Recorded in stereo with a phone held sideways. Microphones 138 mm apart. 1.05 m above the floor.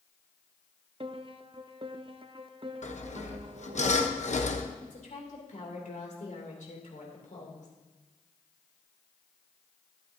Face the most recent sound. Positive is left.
turn(degrees=65)  # may be behind; listen again after turning